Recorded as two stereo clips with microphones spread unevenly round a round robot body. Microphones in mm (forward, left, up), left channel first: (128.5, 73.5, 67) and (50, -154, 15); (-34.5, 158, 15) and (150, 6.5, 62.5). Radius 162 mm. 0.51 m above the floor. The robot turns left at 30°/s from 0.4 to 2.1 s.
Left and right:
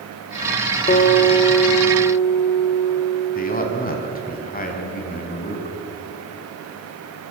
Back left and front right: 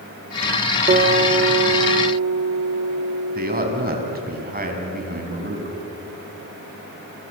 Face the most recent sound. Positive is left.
turn(degrees=15)